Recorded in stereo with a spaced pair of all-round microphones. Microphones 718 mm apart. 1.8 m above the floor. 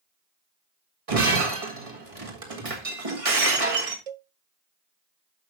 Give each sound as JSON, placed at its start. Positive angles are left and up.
{"t": 1.1, "sound": "breaking glass", "side_deg": -50, "distance_m": 1.8}
{"t": 4.1, "sound": "a cowbell", "side_deg": -55, "distance_m": 0.5}